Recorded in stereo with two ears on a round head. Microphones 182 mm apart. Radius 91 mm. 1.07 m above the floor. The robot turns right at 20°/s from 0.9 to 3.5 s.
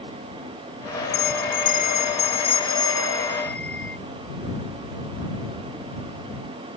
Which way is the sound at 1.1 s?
125° left.